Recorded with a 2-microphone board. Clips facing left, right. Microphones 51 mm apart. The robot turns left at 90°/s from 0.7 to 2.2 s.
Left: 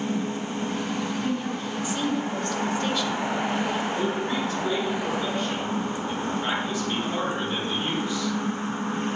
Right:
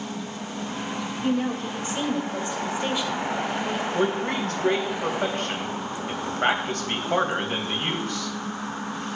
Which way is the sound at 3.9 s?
65° right (ahead or behind).